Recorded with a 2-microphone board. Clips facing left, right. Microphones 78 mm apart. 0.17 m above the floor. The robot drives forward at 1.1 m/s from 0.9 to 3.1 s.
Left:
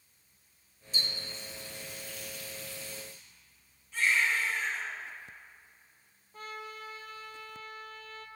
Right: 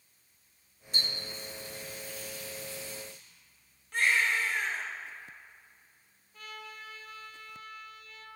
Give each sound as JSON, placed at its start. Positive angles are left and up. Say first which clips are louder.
{"t": 0.9, "sound": "a running tap", "louder": "right 1 dB", "side_deg": -50, "distance_m": 2.0}
{"t": 3.9, "sound": "a baby crying", "louder": "right 1 dB", "side_deg": -65, "distance_m": 1.9}
{"t": 6.3, "sound": "a trumpet", "louder": "left 3 dB", "side_deg": 40, "distance_m": 1.0}